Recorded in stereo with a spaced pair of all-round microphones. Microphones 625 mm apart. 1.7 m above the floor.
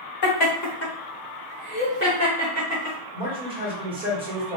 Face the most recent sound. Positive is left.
turn(degrees=-10)  # may be behind; listen again after turning